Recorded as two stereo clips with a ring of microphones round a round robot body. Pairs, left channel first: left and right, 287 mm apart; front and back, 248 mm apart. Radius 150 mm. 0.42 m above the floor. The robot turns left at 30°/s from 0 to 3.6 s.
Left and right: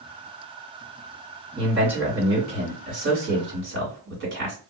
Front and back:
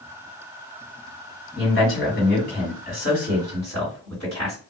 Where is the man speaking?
5° left, 1.9 m; by 4.5 s 60° right, 1.9 m.